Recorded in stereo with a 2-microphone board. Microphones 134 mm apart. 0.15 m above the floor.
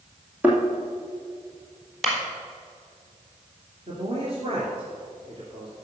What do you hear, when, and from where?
0.4 s a thud: 10° right (ahead or behind), 2.5 m
2.0 s a clap: centre (ahead or behind), 3.5 m
3.9 s a man speaking: 45° right (ahead or behind), 2.5 m